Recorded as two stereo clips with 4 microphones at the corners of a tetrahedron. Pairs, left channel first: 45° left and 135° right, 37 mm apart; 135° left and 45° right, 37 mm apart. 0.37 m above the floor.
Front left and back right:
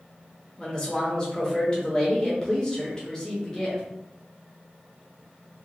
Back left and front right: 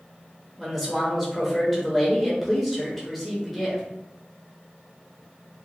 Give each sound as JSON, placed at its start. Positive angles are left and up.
{"t": 0.6, "sound": "a man speaking", "azimuth_deg": 50, "distance_m": 0.8}